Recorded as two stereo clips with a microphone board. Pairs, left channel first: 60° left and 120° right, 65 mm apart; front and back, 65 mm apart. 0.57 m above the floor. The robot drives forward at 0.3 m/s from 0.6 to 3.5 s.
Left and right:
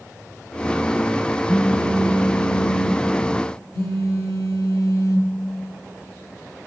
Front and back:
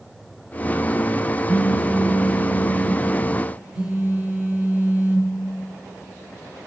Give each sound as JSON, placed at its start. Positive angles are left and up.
{"t": 1.5, "sound": "a phone buzzing", "azimuth_deg": 95, "distance_m": 3.5}